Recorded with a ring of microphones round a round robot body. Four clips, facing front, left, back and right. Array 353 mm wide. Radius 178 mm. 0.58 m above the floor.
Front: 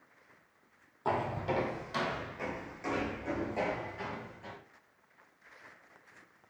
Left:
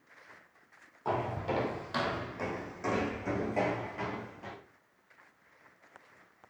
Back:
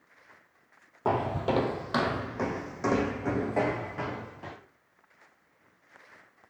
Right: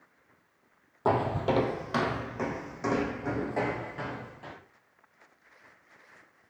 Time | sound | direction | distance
1.1 | footsteps | 125° right | 1.4 m